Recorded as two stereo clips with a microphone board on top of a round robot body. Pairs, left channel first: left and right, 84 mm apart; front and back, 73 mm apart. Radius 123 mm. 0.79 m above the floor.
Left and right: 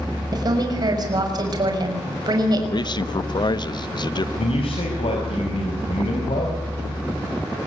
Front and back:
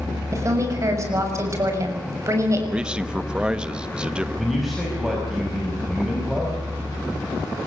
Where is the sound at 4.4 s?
90° left, 5 m.